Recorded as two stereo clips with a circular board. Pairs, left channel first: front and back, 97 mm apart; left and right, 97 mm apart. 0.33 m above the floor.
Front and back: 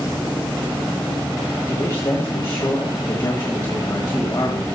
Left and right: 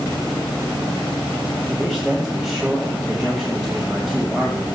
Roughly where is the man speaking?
Ahead.